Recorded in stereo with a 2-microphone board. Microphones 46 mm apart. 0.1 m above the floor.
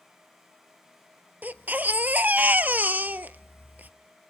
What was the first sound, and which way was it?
A baby crying, 40° right (ahead or behind).